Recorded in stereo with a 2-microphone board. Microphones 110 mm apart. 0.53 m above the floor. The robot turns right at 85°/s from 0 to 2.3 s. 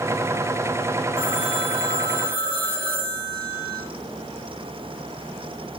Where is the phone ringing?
120° right, 2.5 m; by 3.8 s 25° right, 2.5 m.